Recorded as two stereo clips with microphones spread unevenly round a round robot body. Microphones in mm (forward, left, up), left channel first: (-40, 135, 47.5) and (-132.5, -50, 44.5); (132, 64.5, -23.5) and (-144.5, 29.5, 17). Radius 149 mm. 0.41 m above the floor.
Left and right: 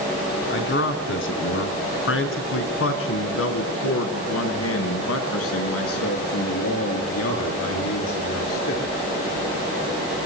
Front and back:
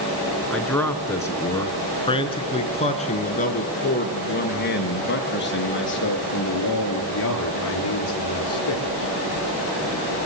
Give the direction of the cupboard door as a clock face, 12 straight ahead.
No cupboard door in this recording.